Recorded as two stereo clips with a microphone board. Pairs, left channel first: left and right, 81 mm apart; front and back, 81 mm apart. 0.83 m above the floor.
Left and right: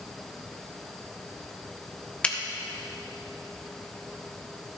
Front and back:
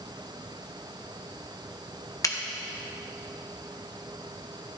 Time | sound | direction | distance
2.2 | a finger snap | 20° left | 0.8 m